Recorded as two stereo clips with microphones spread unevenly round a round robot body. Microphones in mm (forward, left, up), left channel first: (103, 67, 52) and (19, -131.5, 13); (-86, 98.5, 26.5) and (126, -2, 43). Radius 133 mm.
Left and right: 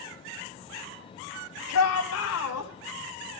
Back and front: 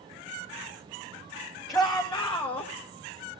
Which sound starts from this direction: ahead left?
A shout, at 1.7 s.